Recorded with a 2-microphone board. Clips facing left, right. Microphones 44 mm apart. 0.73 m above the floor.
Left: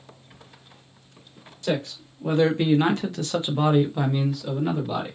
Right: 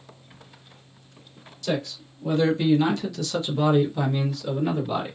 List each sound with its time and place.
1.6 s a man speaking: 35° left (ahead or behind), 1.3 m; by 5.2 s 5° left (ahead or behind), 1.3 m